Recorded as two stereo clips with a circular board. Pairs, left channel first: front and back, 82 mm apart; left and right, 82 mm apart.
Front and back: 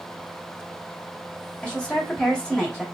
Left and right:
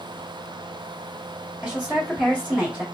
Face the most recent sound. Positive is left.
turn(degrees=-55)